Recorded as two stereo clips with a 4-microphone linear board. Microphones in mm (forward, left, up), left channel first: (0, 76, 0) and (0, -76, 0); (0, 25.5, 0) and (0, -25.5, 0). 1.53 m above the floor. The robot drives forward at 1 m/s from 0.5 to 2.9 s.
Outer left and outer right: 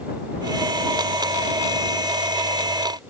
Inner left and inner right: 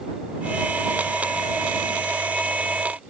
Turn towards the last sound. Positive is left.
No sound to turn to.